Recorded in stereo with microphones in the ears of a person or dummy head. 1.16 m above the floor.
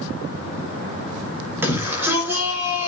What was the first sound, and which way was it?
A shout, 10° right (ahead or behind).